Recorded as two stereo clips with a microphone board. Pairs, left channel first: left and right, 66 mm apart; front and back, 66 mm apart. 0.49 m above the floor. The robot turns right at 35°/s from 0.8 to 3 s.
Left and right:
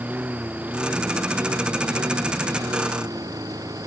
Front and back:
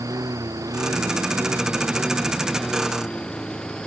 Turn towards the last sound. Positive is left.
turn(degrees=-75)